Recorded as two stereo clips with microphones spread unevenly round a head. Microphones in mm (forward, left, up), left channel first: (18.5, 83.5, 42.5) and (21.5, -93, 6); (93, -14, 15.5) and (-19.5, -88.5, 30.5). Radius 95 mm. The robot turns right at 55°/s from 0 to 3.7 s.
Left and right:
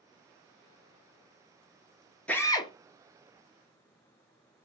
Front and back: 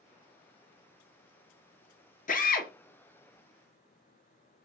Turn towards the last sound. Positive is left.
turn(degrees=90)